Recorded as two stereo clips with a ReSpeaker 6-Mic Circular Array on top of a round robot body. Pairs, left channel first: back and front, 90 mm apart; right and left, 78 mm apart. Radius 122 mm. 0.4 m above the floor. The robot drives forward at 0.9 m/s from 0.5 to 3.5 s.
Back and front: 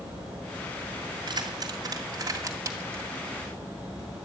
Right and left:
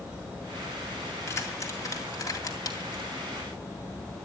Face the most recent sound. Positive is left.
turn(degrees=-75)